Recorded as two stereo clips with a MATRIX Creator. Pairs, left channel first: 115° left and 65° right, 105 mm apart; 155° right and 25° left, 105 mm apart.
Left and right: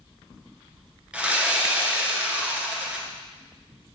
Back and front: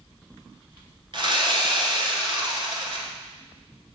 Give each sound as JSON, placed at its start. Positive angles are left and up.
{"t": 1.1, "sound": "sawing", "azimuth_deg": 10, "distance_m": 1.2}